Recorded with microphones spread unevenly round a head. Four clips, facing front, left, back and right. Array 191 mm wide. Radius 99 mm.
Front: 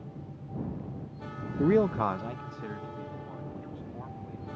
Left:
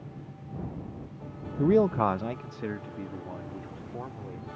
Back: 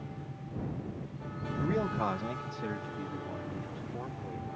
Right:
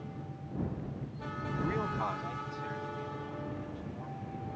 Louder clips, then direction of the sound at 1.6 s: Left 12 dB, front 7 dB; 45° left.